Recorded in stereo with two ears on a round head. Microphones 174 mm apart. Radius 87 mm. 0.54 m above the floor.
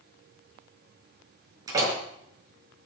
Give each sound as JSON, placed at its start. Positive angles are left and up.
{"t": 1.7, "sound": "a door slam", "side_deg": -20, "distance_m": 6.5}